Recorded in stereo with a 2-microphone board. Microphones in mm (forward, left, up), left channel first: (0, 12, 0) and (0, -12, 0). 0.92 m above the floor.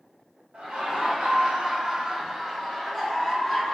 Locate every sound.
0.5 s laughter: 70° right (ahead or behind), 1.0 m; by 3.7 s 25° left (ahead or behind), 1.4 m